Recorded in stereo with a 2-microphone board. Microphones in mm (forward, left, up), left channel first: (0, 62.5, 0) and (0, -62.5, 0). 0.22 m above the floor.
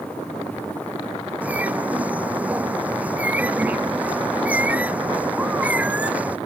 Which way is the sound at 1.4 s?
10° right (ahead or behind).